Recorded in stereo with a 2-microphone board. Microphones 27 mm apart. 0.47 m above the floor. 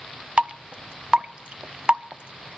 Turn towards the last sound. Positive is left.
turn(degrees=-40)  # may be behind; listen again after turning